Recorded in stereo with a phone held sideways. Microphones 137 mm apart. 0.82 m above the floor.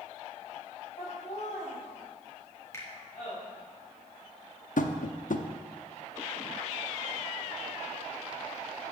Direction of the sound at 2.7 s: 20° left (ahead or behind).